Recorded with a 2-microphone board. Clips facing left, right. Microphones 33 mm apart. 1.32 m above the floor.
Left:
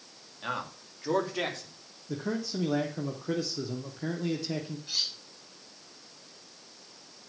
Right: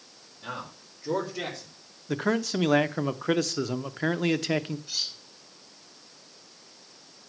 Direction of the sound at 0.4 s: 70° left (ahead or behind).